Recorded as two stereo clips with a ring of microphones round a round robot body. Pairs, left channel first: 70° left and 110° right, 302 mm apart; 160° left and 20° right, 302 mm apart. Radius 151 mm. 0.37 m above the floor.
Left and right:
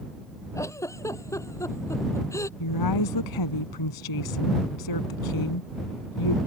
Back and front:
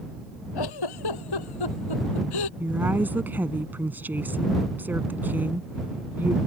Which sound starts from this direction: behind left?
A giggle, at 0.6 s.